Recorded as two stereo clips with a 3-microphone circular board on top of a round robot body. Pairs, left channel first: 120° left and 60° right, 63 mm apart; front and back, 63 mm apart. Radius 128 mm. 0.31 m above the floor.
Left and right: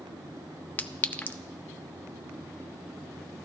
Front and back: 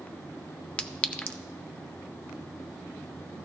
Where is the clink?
65° left, 0.7 m.